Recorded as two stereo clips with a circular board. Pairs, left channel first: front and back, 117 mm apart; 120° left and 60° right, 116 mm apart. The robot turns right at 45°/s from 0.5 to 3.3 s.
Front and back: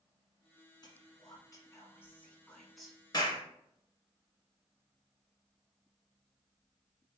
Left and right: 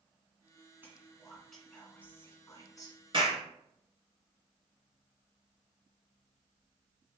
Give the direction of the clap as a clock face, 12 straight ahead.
1 o'clock.